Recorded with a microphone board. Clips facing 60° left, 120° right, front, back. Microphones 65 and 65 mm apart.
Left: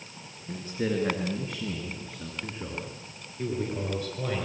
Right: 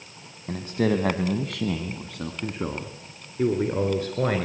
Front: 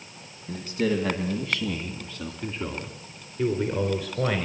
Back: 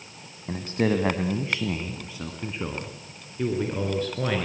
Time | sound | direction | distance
0.5 | a man speaking | 140° right | 2.0 m